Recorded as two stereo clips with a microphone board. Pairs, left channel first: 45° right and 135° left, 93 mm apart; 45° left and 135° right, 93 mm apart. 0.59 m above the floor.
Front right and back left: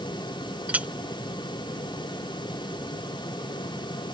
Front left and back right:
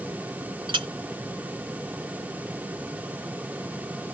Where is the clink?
155° right.